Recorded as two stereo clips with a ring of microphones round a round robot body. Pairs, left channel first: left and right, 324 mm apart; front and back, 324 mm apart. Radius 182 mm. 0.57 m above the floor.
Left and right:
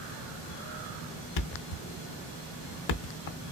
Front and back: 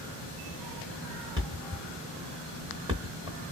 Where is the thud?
100° left, 0.6 m.